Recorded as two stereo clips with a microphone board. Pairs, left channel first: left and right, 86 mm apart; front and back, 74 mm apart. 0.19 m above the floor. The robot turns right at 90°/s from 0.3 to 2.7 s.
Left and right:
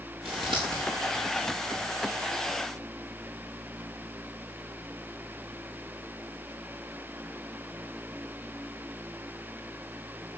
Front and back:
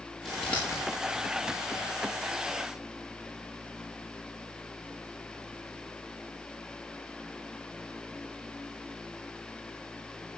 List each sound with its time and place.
0.2 s scissors: 95° right, 4.5 m; by 0.8 s 45° right, 4.5 m